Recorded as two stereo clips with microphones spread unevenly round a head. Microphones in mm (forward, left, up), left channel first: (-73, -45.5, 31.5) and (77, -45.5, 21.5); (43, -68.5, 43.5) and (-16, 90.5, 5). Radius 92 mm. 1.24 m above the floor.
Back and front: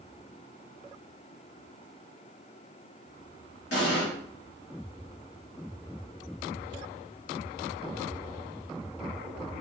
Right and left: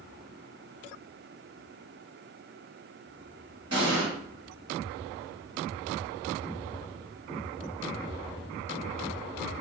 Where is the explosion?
Straight behind, 1.5 m.